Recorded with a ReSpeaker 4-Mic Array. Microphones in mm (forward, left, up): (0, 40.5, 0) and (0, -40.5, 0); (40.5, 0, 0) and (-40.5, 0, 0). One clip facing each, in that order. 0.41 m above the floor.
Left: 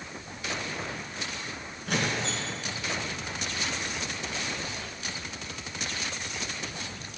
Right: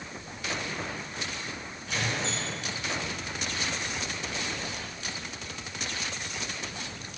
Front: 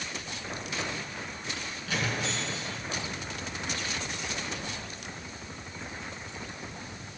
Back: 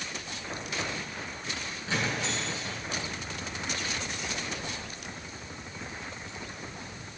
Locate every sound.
1.9 s a squeak: 120° left, 2.5 m